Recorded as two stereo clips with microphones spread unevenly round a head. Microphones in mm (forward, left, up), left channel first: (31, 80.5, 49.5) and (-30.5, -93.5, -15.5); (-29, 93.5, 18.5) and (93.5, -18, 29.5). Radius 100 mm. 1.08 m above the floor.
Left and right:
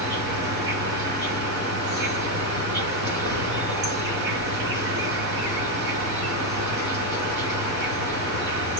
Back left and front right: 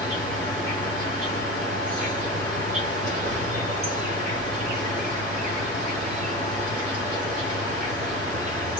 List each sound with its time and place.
0.0 s an insect: 100° right, 4.5 m